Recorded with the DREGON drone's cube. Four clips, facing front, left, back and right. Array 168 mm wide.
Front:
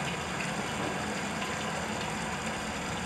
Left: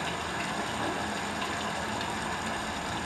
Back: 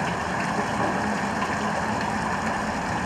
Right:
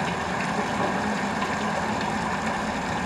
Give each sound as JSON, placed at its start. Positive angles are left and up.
{"t": 0.0, "sound": "running water", "azimuth_deg": -140, "distance_m": 0.7}